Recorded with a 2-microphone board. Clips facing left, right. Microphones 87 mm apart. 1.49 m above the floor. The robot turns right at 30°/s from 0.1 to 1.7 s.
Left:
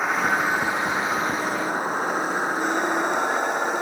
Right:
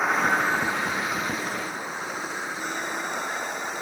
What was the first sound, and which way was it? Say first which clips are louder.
A vehicle: left 1 dB; straight ahead.